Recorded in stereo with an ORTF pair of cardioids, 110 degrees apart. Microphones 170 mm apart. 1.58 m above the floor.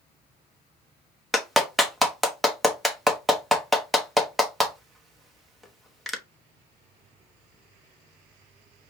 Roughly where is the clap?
Ahead.